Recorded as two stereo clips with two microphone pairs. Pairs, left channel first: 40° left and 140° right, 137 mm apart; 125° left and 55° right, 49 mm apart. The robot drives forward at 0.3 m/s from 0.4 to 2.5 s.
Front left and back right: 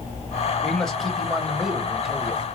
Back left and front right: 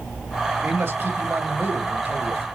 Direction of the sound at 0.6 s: 45° right.